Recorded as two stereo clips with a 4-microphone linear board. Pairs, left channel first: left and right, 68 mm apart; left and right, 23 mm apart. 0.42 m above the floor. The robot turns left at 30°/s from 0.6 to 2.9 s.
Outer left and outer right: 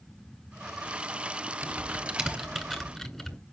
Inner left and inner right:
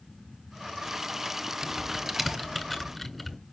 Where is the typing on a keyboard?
25° right (ahead or behind), 2.5 m; by 3.4 s 5° left (ahead or behind), 2.5 m.